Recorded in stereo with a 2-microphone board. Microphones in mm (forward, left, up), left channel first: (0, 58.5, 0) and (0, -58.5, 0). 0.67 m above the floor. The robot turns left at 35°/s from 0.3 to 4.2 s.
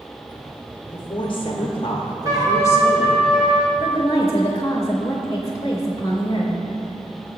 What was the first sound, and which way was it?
A woman speaking, 95° left.